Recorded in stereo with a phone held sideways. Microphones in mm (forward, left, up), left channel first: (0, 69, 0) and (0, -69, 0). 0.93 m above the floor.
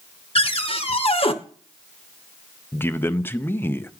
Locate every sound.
0.3 s a cupboard door: 45° left (ahead or behind), 0.8 m
2.7 s a man speaking: 15° left (ahead or behind), 0.5 m